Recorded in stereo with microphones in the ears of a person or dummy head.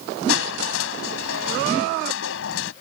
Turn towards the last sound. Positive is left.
turn(degrees=80)